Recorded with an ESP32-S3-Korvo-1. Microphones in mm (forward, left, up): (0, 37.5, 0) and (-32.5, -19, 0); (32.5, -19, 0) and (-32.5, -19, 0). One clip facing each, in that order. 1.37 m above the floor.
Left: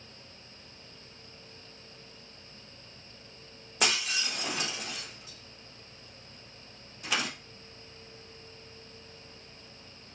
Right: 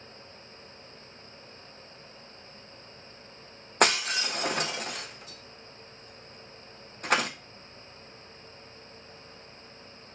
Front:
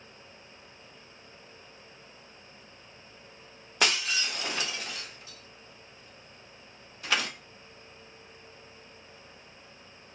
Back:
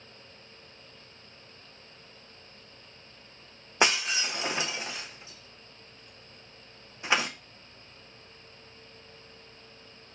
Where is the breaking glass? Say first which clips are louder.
Right 6 dB, back 2 dB; 120° right, 0.7 m.